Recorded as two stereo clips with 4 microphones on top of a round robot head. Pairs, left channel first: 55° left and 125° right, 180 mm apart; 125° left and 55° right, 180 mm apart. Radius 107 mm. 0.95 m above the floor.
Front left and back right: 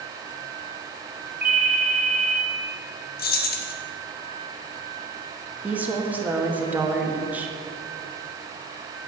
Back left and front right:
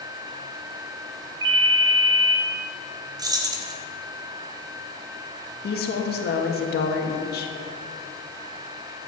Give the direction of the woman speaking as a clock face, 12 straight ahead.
7 o'clock.